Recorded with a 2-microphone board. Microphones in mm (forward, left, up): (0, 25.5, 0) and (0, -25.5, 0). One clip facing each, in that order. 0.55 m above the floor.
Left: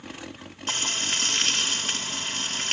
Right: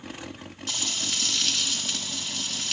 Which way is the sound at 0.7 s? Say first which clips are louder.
Left 4 dB; 40° left (ahead or behind).